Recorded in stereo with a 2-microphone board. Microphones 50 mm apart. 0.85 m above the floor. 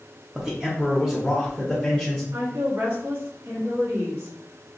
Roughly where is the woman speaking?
Right.